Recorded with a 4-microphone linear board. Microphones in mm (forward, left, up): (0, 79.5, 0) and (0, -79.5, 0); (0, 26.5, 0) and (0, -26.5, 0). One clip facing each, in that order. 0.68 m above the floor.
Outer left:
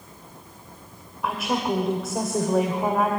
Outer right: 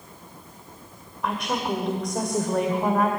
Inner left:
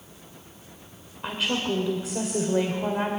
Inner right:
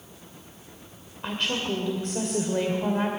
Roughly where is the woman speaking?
Centre.